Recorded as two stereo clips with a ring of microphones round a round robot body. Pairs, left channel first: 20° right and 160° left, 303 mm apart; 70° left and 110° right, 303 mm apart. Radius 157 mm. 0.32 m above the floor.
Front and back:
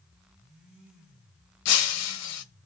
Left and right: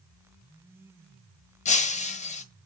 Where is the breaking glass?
5° left, 1.1 m.